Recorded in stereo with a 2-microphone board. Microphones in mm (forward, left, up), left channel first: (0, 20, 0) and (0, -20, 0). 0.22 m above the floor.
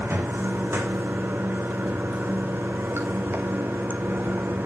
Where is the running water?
70° right (ahead or behind), 1.9 m.